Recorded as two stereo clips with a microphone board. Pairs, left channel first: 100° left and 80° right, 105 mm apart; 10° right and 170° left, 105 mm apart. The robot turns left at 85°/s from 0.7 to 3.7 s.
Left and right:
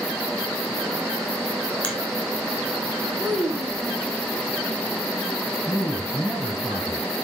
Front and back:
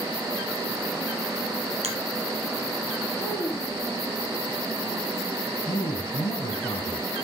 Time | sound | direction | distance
1.8 | a finger snap | 175° left | 4 m
3.2 | a child speaking | 15° left | 1.3 m
5.7 | a man speaking | 10° left | 5 m